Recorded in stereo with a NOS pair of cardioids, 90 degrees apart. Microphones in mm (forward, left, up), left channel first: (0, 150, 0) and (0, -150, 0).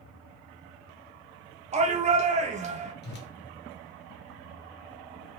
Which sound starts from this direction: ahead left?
A whoosh, at 3.0 s.